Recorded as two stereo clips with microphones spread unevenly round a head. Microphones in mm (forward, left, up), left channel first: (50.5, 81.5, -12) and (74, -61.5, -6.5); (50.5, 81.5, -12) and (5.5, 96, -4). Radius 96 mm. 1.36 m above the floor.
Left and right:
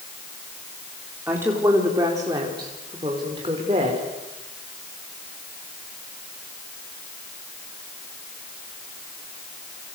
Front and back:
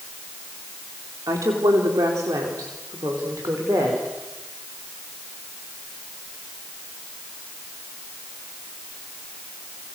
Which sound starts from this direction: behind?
A woman speaking, at 1.3 s.